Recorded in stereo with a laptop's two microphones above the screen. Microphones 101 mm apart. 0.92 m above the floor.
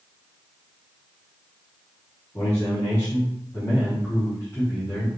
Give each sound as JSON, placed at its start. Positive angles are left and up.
{"t": 2.3, "sound": "a man speaking", "side_deg": 30, "distance_m": 2.5}